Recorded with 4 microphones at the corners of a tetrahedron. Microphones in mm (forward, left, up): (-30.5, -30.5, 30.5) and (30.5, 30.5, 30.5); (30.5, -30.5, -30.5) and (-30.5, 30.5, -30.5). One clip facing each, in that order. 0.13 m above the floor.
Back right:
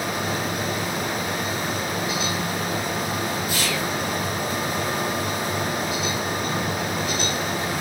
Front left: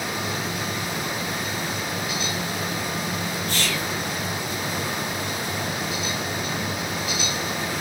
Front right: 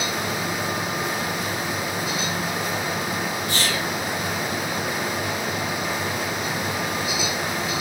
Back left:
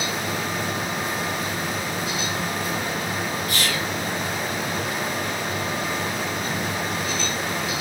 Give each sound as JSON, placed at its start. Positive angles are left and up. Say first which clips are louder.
{"t": 3.5, "sound": "whispering", "louder": "back right 2 dB, front right 1 dB", "azimuth_deg": -65, "distance_m": 1.5}